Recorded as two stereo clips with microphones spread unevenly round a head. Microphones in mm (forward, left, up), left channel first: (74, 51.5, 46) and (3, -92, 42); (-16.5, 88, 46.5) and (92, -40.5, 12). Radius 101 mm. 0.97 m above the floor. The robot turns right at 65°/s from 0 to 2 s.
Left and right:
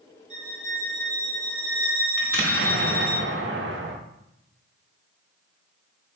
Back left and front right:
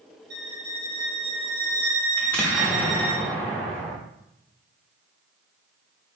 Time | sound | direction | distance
0.3 | a violin | 75° right | 1.8 m
2.2 | an explosion | 150° right | 0.5 m